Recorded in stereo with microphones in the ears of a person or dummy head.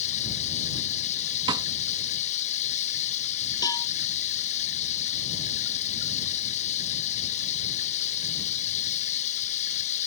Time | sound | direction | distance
0.0 | running water | 45° left (ahead or behind) | ?
1.5 | a snare drum | 25° right (ahead or behind) | ?
3.6 | a cowbell | 15° left (ahead or behind) | ?